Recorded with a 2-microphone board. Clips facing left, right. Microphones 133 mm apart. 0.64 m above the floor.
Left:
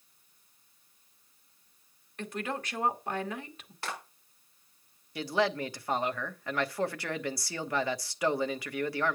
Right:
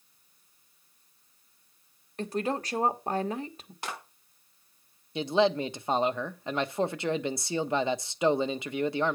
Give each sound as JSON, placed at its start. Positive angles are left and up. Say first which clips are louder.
{"t": 2.2, "sound": "a woman speaking", "louder": "right 6 dB", "side_deg": -35, "distance_m": 1.3}
{"t": 3.8, "sound": "a clap", "louder": "even", "side_deg": -20, "distance_m": 5.5}
{"t": 5.2, "sound": "a man speaking", "louder": "right 5 dB", "side_deg": -20, "distance_m": 0.7}